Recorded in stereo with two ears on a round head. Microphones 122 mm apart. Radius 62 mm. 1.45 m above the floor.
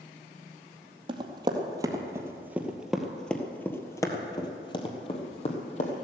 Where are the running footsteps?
40° right (ahead or behind), 2 m; by 6.0 s 50° left (ahead or behind), 2.5 m.